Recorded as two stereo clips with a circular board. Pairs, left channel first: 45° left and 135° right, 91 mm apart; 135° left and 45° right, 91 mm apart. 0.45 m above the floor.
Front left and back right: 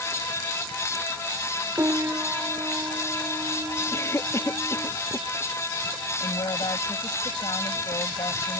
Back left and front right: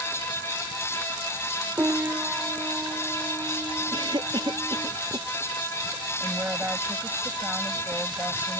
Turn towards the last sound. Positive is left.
turn(degrees=25)